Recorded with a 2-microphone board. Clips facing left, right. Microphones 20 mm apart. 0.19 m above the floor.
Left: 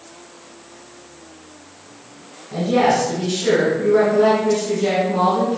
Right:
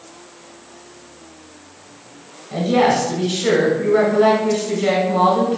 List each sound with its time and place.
2.5 s a woman speaking: 30° right (ahead or behind), 1.1 m